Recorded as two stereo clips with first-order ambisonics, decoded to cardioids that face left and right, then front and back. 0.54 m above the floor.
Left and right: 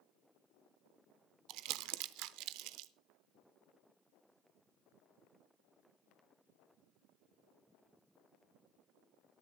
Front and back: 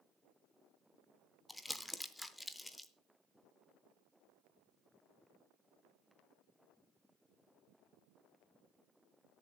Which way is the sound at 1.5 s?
85° right.